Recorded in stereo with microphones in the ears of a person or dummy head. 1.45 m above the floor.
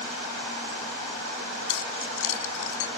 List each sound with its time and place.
1.7 s keys jangling: 75° left (ahead or behind)